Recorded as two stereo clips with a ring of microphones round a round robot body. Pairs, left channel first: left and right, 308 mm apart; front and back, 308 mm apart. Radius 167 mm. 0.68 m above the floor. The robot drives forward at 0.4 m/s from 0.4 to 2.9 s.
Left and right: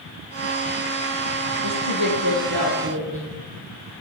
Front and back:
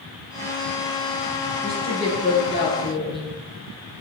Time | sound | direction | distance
1.6 | a woman speaking | 60° right | 9.5 m